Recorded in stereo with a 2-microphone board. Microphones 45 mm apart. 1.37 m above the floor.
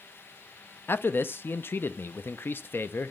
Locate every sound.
0.9 s a man speaking: 55° left (ahead or behind), 0.5 m